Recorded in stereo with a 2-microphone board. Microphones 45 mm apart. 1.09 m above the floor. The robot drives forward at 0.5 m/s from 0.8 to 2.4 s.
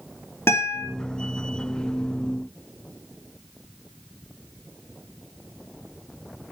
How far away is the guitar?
About 2.5 m.